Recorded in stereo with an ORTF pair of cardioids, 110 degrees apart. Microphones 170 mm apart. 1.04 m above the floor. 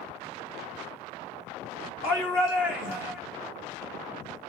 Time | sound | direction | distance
2.0 | a shout | 65° left | 2 m